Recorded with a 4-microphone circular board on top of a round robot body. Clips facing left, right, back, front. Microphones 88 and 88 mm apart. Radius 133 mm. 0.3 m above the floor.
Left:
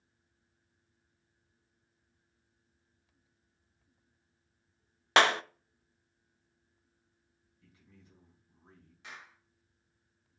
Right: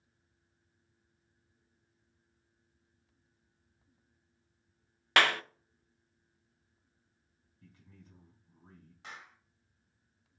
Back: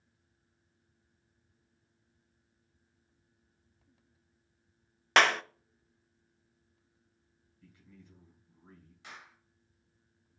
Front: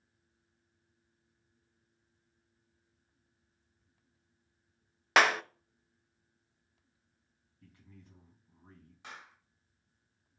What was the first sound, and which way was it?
A clap, 80° left.